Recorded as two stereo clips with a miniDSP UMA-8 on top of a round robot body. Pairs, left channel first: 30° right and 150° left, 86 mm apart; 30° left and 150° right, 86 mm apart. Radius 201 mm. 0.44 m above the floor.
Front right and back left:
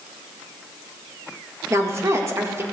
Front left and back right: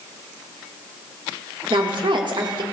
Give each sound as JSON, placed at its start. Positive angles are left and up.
{"t": 1.7, "sound": "a woman speaking", "azimuth_deg": -160, "distance_m": 1.8}